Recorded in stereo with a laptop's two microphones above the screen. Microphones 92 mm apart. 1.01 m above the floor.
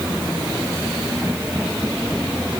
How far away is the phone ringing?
I don't hear a phone ringing.